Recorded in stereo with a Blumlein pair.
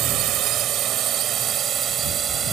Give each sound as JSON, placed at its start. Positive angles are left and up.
{"t": 0.0, "sound": "a drone", "azimuth_deg": -35}